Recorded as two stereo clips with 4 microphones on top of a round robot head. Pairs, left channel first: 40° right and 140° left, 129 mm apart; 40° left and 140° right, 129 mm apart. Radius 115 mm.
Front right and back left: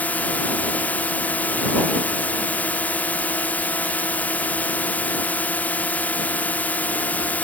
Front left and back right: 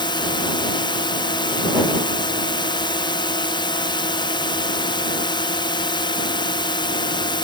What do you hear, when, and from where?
0.0 s a drone: 30° left